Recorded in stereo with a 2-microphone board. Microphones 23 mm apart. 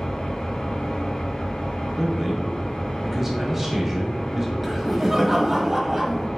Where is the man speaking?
10° right (ahead or behind), 1.0 m.